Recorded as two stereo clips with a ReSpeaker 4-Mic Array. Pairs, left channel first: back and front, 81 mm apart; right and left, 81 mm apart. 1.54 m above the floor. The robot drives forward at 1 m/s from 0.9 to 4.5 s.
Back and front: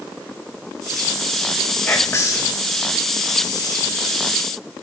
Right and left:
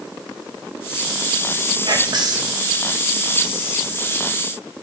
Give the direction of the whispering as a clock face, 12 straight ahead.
8 o'clock.